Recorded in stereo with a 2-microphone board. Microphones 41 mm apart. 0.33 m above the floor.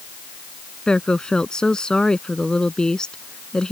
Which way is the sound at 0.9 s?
20° left (ahead or behind).